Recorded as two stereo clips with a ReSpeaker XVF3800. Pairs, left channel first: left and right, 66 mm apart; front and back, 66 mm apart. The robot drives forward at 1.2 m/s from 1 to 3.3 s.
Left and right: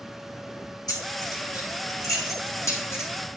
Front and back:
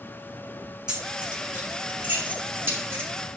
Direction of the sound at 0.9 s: 105° left.